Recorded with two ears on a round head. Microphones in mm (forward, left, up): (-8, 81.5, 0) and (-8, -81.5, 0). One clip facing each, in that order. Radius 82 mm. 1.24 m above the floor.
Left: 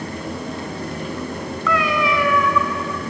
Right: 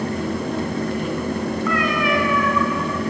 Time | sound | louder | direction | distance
1.7 | a cat meowing | left 3 dB | 60° left (ahead or behind) | 2 m